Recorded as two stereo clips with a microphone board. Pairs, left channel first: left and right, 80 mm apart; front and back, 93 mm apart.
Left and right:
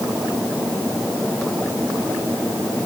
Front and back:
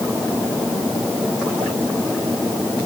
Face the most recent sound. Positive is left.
No sound to turn to.